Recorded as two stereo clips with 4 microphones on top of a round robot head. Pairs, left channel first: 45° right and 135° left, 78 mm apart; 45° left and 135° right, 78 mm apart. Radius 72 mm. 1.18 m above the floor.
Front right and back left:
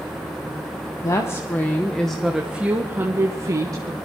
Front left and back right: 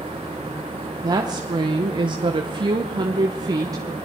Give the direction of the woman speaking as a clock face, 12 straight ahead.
3 o'clock.